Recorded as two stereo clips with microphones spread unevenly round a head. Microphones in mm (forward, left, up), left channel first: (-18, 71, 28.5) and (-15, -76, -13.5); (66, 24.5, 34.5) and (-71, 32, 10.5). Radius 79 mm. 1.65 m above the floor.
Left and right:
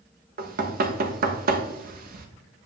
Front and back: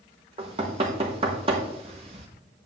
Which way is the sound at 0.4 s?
125° right.